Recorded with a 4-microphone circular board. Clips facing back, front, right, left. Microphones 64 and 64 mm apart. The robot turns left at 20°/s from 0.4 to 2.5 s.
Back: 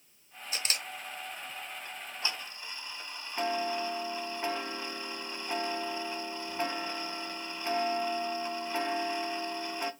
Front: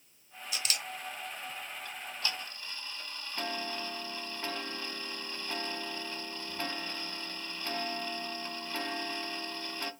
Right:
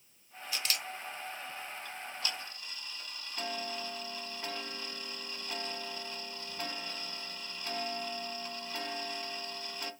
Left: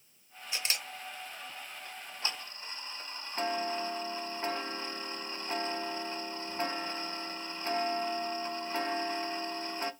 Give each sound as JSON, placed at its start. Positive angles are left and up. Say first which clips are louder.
{"t": 0.5, "sound": "a camera shutter", "louder": "back 1 dB, even", "azimuth_deg": 150, "distance_m": 0.8}
{"t": 1.9, "sound": "ticking", "louder": "back 1 dB, left 3 dB", "azimuth_deg": 135, "distance_m": 0.6}